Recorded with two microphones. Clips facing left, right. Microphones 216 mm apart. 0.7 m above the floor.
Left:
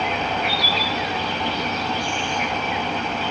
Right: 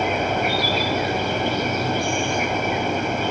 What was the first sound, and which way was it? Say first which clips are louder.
An insect: right 3 dB; 50° right (ahead or behind).